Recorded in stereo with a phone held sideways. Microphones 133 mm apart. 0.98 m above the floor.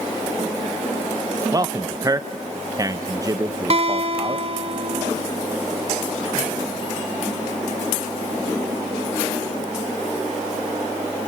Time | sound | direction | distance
1.5 | a man speaking | 25° right (ahead or behind) | 0.5 m
3.7 | a guitar | 45° right (ahead or behind) | 1.1 m